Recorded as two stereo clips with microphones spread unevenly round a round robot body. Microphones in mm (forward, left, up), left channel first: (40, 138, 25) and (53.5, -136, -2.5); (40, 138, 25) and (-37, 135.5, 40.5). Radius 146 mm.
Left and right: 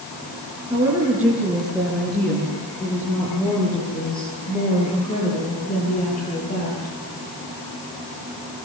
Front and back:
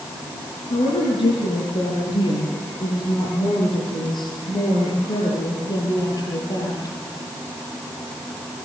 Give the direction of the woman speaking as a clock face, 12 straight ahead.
12 o'clock.